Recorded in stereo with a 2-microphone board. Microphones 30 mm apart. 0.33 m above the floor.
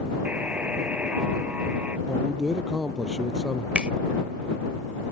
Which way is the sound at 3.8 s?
35° right (ahead or behind).